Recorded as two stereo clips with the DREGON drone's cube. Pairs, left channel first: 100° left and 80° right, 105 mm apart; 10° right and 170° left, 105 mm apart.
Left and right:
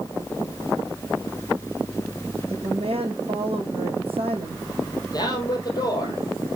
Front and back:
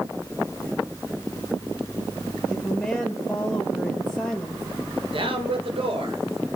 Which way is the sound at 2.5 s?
100° right.